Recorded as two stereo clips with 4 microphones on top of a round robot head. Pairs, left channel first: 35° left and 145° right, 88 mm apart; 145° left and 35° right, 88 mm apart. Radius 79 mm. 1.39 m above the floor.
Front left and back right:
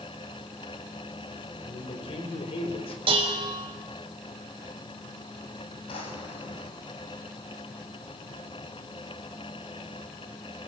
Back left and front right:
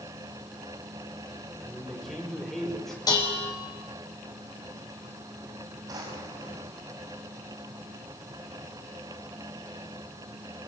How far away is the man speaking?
About 5 m.